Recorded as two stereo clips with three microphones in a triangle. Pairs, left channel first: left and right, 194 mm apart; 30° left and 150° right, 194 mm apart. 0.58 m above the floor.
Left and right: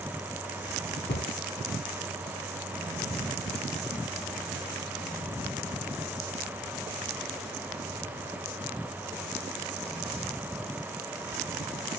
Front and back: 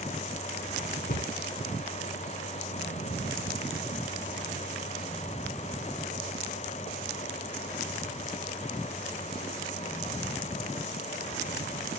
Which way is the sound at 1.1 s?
65° left.